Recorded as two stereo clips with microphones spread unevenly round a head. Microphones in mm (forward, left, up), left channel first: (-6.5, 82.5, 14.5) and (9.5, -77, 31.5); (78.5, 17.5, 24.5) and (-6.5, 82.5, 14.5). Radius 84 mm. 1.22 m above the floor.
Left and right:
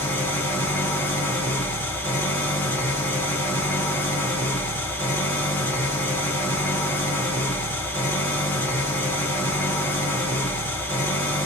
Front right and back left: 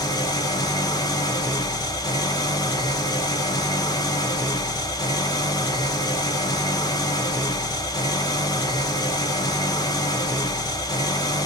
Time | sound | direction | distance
0.0 | an engine running | 15° left | 0.8 m